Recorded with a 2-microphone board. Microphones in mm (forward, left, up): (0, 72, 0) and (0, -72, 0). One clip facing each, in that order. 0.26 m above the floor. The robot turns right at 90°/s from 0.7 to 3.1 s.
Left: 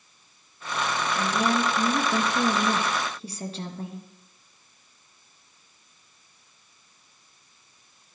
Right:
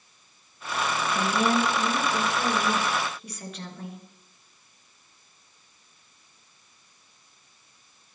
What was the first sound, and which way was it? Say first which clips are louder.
A woman speaking: right 1 dB; 30° right.